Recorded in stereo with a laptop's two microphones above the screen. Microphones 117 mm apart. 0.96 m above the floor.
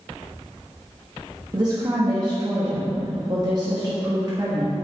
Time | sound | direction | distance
1.5 | a woman speaking | 35° right (ahead or behind) | 1.1 m